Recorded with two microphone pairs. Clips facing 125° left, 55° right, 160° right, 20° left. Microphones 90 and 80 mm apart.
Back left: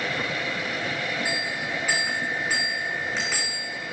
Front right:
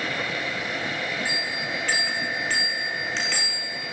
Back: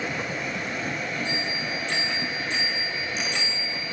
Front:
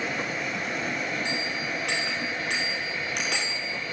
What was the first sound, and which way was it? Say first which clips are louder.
A bell: back left 1 dB, back 1 dB; 45° left.